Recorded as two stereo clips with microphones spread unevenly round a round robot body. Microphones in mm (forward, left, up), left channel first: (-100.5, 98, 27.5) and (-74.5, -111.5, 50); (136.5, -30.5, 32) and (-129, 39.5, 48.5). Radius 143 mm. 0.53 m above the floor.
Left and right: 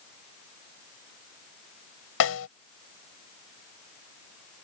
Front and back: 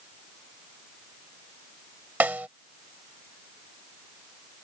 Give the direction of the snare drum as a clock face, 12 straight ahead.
9 o'clock.